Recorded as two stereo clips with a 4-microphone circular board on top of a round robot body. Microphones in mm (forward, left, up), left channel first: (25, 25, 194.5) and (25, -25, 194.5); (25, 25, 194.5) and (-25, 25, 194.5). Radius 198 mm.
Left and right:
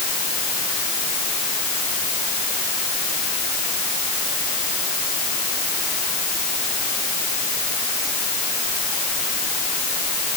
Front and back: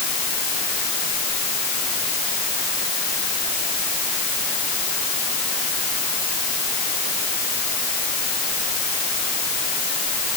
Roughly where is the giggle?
I don't hear a giggle.